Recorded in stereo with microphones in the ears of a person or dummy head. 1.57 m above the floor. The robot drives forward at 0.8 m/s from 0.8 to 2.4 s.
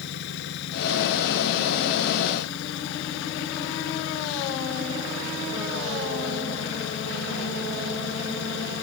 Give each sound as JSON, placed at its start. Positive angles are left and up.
{"t": 0.0, "sound": "an engine running", "side_deg": 65}